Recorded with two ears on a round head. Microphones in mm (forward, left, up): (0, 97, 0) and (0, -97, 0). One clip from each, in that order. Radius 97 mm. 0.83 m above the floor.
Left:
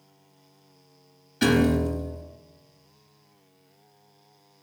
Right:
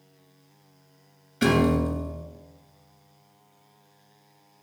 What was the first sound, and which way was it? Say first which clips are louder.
A piano: even; 5° left (ahead or behind).